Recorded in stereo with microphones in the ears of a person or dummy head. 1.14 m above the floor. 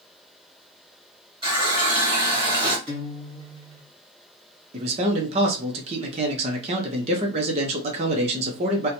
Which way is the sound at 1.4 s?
25° right (ahead or behind).